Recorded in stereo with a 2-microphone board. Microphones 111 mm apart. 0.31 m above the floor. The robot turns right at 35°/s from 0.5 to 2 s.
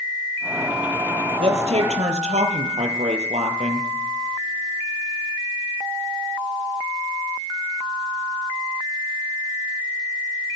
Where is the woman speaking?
60° right (ahead or behind), 6.5 m; by 3.9 s 80° right, 6.5 m.